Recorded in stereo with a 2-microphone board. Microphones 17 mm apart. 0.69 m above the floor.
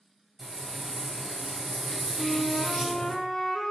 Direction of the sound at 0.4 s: 45° right (ahead or behind).